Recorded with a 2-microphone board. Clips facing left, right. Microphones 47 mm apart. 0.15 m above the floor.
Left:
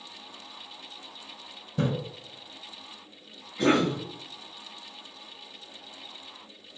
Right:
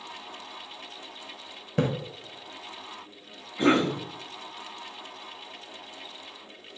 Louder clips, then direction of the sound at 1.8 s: Right 2 dB; 70° right (ahead or behind).